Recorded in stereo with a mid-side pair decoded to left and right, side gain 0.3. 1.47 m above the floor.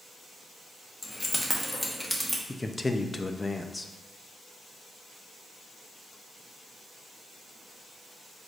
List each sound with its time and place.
1.0 s keys jangling: 45° left, 1.2 m; by 2.4 s straight ahead, 1.6 m
2.5 s a man speaking: 30° left, 0.6 m